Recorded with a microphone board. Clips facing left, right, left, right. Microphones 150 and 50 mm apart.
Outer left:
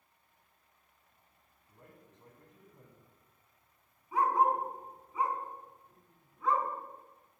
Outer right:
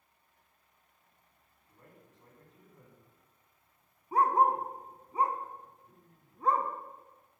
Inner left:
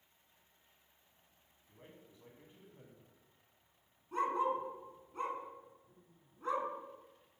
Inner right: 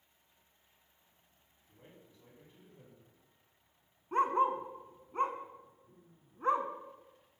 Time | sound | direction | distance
1.7 | a man speaking | 20° left (ahead or behind) | 2.0 m
4.1 | a dog barking | 40° right (ahead or behind) | 0.7 m